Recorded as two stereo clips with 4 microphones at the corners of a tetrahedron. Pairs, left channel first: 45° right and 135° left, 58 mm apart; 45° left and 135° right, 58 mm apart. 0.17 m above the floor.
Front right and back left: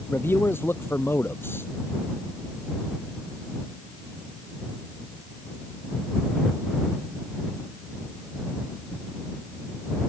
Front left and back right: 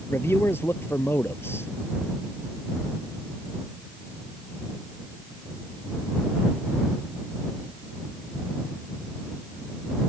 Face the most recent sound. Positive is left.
turn(degrees=5)